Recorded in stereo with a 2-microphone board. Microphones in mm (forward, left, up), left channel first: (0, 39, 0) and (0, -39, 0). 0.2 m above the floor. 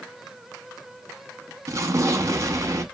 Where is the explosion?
45° right (ahead or behind), 0.6 m.